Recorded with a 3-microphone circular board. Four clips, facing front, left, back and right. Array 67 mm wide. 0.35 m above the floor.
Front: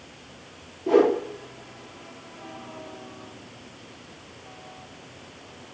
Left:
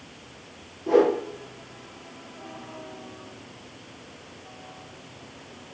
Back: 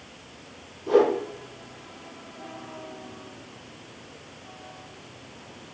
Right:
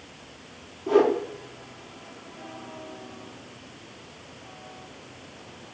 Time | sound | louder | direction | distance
0.9 | a whoosh | left 1 dB, front 1 dB | 15° left | 3.5 m